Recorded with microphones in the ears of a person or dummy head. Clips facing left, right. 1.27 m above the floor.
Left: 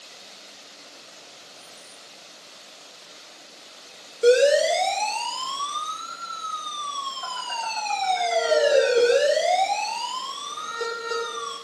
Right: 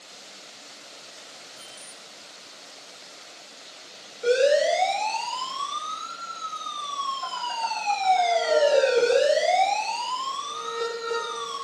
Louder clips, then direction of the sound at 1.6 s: Right 1 dB; 55° right (ahead or behind).